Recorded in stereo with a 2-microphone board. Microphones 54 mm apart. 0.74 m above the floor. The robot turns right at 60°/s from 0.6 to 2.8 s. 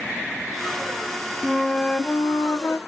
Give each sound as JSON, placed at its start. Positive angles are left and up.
{"t": 1.4, "sound": "a flute", "azimuth_deg": 0, "distance_m": 1.3}